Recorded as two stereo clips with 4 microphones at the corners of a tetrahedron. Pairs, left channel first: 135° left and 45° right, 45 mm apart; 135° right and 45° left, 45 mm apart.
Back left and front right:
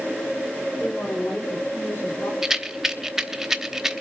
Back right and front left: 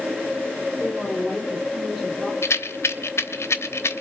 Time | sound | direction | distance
0.8 | a woman speaking | 130° left | 2 m
2.4 | a rattle | 130° right | 0.9 m